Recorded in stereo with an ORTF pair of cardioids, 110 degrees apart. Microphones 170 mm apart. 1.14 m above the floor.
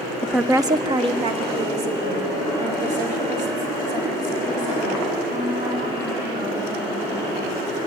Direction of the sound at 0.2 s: 10° left.